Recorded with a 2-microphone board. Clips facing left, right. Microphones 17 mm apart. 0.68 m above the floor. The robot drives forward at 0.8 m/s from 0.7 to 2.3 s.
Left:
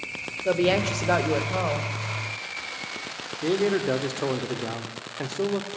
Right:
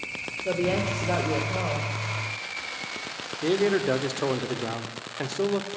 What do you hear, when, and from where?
0.5 s a woman speaking: 50° left (ahead or behind), 1.9 m; by 1.9 s 35° left (ahead or behind), 2.5 m
3.4 s a man speaking: 5° right (ahead or behind), 1.4 m